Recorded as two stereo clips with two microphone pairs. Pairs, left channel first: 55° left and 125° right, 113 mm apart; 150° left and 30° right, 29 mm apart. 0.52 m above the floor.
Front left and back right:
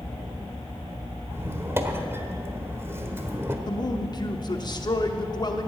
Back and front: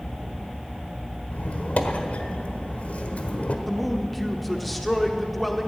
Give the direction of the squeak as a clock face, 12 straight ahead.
7 o'clock.